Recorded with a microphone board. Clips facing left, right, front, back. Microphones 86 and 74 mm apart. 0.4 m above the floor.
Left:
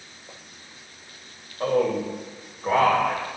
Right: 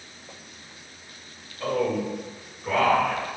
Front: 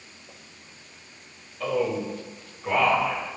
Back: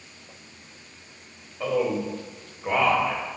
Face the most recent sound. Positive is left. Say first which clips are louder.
# left 3 dB, back 1 dB
turn(degrees=115)